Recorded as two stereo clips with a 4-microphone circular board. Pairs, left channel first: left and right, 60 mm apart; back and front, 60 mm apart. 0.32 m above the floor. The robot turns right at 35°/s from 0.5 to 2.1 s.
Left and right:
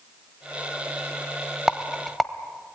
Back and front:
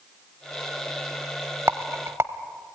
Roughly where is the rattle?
Ahead.